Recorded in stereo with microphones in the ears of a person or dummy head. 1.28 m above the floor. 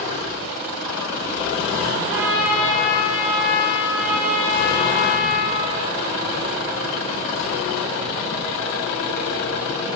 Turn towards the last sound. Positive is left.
turn(degrees=-10)  # may be behind; listen again after turning